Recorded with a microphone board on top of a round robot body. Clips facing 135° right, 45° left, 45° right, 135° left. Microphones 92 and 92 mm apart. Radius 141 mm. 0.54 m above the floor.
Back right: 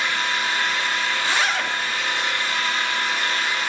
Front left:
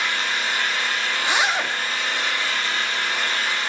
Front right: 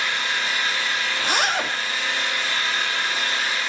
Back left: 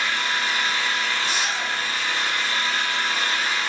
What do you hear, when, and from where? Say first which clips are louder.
0.0 s an engine running: back right 1 dB, back left 1 dB; 85° left, 4.5 m
1.2 s a zipper: front left 3 dB, front right 3 dB; 25° right, 0.7 m